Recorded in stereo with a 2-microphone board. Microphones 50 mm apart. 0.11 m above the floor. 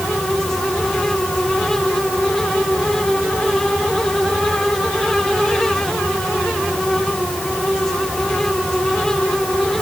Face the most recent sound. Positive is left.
No sound to turn to.